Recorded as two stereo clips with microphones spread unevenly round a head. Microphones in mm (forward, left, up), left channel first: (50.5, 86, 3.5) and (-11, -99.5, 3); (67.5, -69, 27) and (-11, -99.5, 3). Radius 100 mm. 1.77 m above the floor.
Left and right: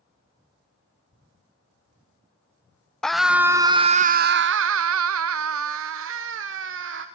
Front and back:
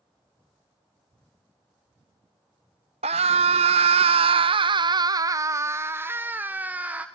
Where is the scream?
160° left, 0.8 m; by 7.1 s 80° right, 1.6 m.